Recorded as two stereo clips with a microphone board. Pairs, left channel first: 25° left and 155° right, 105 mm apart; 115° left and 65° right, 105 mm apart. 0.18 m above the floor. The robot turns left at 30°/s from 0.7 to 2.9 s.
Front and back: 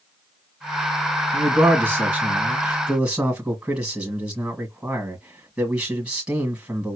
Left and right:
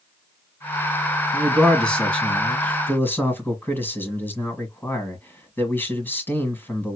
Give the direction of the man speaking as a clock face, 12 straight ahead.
6 o'clock.